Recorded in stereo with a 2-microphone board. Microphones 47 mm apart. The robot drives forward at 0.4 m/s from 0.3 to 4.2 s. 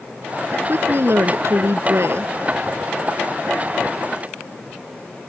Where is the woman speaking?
60° right (ahead or behind); by 2.3 s 65° right (ahead or behind).